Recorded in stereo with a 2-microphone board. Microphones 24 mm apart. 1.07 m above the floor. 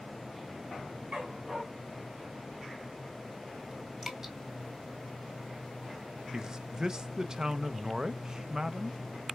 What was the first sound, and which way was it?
A dog barking, 35° right (ahead or behind).